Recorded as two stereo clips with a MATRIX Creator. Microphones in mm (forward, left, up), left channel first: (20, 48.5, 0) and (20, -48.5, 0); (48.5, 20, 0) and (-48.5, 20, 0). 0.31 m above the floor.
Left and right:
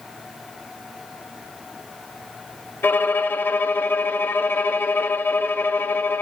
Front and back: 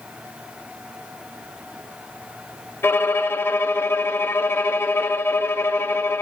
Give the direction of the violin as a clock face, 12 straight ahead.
11 o'clock.